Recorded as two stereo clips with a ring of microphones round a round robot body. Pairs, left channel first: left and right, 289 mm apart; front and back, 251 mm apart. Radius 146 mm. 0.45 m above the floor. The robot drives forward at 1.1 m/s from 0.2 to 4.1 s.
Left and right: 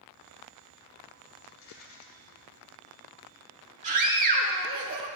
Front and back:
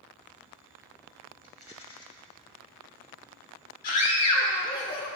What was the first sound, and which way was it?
A rattle, 55° left.